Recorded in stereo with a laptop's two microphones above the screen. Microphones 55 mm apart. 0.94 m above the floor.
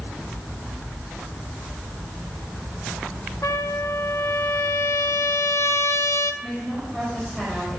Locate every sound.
3.4 s a trumpet: 60° left (ahead or behind), 0.5 m
6.4 s a woman speaking: 10° left (ahead or behind), 5 m